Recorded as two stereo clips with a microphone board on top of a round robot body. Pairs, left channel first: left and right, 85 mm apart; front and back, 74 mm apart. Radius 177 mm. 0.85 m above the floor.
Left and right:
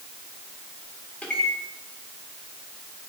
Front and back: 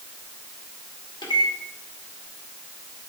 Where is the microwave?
15° left, 2.0 m.